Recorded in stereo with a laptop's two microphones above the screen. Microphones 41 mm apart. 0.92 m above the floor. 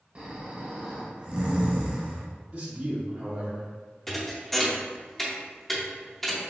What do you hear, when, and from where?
0.1 s snoring: 30° right (ahead or behind), 0.7 m
2.5 s a man speaking: 35° right (ahead or behind), 1.7 m
4.1 s a thud: 5° left (ahead or behind), 0.7 m